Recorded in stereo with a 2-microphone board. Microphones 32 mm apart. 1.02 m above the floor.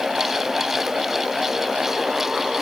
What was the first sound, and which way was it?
Only background noise.